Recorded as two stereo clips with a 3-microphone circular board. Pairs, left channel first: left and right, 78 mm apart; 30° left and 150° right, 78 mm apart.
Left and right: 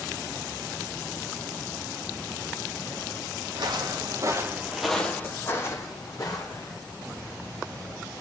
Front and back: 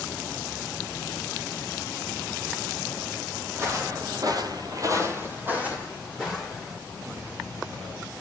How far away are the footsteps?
About 1.3 m.